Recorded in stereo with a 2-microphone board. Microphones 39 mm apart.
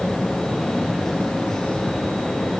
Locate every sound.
Only background noise.